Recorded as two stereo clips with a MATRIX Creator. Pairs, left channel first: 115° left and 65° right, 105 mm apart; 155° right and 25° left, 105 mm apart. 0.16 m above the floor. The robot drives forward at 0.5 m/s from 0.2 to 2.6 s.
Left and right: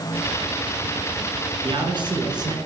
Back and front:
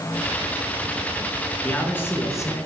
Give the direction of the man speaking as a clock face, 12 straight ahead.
3 o'clock.